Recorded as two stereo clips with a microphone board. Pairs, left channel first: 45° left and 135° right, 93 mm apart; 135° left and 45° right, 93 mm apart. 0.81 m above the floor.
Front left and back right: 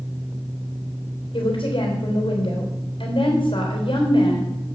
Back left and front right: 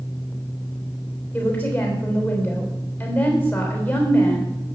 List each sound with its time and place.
1.3 s a woman speaking: 65° left, 3.5 m